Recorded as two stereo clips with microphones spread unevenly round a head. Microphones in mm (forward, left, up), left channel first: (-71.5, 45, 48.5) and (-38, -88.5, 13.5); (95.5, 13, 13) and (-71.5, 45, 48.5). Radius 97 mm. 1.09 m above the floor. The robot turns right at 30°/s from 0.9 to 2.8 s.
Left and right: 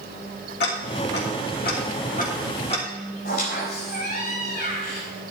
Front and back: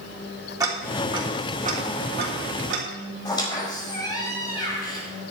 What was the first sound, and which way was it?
Ticking, 95° left.